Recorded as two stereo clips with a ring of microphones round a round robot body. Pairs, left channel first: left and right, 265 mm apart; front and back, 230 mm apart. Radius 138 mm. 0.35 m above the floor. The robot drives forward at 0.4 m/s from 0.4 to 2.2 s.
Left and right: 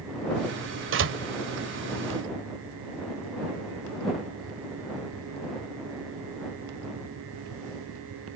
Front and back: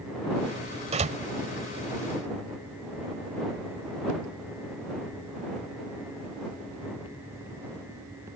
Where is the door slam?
120° right; by 1.2 s 125° right.